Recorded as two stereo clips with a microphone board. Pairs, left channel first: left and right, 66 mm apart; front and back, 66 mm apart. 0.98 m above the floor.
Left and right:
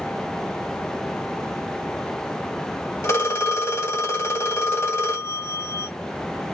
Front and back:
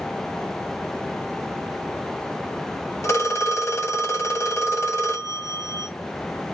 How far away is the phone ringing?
About 1.4 m.